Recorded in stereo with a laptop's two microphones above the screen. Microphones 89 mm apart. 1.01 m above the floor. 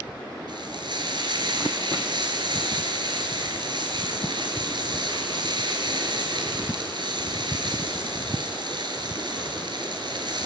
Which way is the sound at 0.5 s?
60° right (ahead or behind).